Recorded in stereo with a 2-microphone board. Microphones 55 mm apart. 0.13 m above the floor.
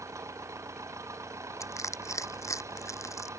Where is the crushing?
70° left (ahead or behind).